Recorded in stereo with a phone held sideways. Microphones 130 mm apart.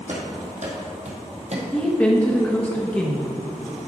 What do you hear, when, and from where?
0.1 s running footsteps: 65° right (ahead or behind), 2 m; by 1.6 s 55° right (ahead or behind), 1.4 m
1.7 s a woman speaking: 10° left (ahead or behind), 0.8 m